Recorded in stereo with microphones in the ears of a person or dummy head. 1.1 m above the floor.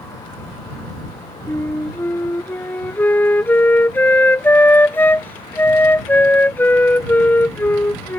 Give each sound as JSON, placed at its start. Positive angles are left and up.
{"t": 1.5, "sound": "a flute", "side_deg": 10}